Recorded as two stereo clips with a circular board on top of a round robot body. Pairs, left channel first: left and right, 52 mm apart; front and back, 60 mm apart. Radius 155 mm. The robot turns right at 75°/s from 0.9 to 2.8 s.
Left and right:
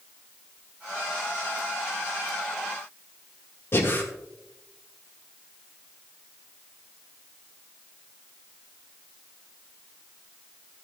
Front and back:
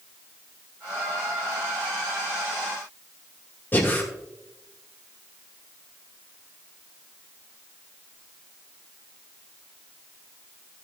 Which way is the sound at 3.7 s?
55° left.